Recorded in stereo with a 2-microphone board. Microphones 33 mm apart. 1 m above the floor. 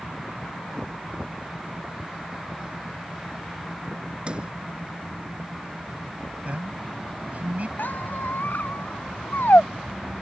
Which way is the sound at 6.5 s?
50° right (ahead or behind).